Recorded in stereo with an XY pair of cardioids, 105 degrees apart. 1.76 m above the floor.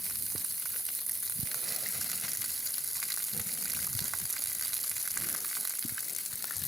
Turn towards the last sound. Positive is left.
No sound to turn to.